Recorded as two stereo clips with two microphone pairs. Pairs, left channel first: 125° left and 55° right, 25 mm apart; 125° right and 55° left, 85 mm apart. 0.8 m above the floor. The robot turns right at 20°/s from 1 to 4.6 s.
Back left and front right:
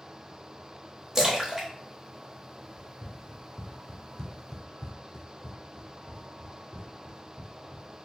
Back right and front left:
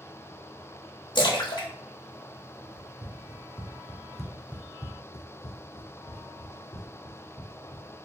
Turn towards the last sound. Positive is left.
turn(degrees=-105)